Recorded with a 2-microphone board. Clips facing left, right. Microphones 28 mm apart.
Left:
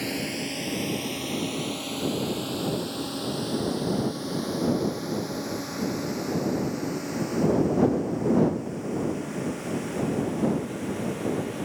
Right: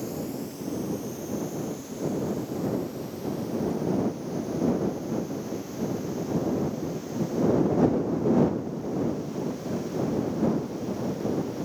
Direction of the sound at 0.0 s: 65° left (ahead or behind).